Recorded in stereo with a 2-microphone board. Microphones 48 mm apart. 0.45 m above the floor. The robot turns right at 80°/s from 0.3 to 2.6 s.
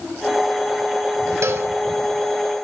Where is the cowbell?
70° right (ahead or behind), 1.0 m; by 1.7 s 45° right (ahead or behind), 1.0 m.